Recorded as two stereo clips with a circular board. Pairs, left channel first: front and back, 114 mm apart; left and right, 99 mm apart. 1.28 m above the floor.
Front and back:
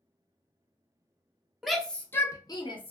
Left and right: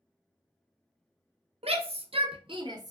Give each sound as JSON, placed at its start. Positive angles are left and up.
{"t": 1.6, "sound": "a shout", "azimuth_deg": -90, "distance_m": 0.8}